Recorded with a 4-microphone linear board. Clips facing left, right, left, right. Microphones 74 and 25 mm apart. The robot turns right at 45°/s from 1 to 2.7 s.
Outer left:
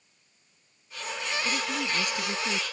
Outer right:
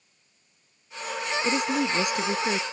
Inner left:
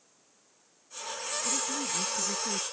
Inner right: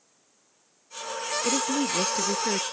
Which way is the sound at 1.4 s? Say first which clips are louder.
Outer right 7 dB, inner right 9 dB; 90° right.